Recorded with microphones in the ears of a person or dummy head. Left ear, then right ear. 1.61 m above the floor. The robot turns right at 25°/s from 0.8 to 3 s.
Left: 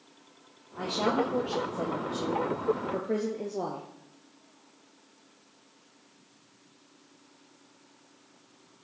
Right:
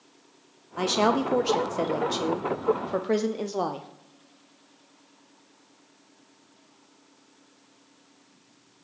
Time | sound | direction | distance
0.8 | a woman speaking | 100° right | 0.6 m